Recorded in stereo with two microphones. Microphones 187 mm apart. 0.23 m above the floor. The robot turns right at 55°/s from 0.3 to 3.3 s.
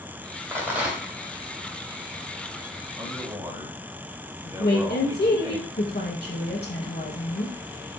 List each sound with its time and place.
0.5 s a rattle: 15° right (ahead or behind), 1.6 m; by 1.1 s centre (ahead or behind), 1.6 m
3.0 s a man speaking: 25° right (ahead or behind), 1.4 m; by 5.6 s 20° right (ahead or behind), 1.4 m
4.6 s a woman speaking: 65° left (ahead or behind), 2 m